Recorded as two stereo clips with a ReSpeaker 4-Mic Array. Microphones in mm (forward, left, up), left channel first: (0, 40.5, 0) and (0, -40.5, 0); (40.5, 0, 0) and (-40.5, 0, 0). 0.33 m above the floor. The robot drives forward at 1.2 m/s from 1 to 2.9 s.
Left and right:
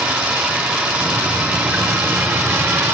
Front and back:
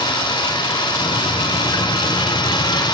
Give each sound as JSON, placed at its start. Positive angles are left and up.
{"t": 0.0, "sound": "running water", "azimuth_deg": -15, "distance_m": 6.0}